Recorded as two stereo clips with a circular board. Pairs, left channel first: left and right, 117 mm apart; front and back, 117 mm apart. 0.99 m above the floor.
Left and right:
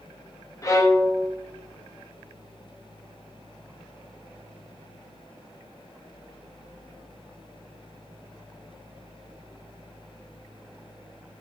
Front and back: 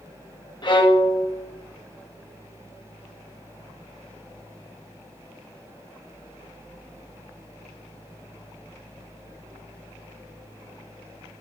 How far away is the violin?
About 1.1 m.